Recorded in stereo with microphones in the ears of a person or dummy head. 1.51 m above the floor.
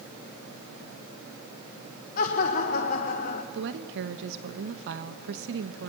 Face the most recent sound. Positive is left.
turn(degrees=-65)  # may be behind; listen again after turning